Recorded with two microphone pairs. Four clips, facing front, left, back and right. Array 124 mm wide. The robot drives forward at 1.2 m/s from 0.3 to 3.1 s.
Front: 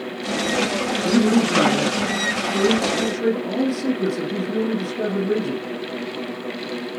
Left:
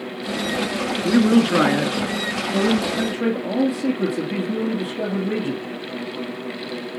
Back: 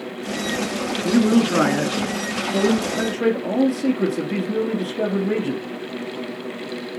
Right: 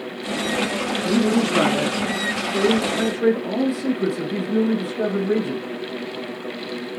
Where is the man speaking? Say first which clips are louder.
Left 4 dB, back 1 dB; 80° left, 1.5 m; by 5.6 s 160° left, 3 m.